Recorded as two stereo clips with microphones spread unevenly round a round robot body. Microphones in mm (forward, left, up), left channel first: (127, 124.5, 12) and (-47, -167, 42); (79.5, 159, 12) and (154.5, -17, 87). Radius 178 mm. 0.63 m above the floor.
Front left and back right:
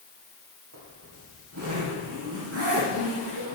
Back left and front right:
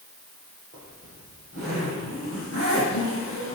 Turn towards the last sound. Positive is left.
turn(degrees=-175)